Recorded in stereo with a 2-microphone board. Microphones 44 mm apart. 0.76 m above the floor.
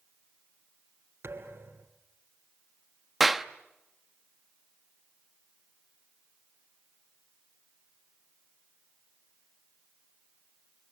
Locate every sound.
1.2 s a thud: 60° right (ahead or behind), 3 m
3.2 s a clap: 5° right (ahead or behind), 0.9 m